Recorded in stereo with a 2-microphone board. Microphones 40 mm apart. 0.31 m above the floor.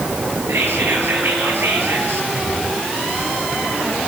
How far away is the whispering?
About 6.5 m.